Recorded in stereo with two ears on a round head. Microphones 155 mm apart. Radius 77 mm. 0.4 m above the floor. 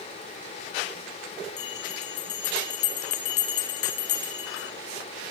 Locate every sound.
1.6 s a bell: 65° left (ahead or behind), 4.5 m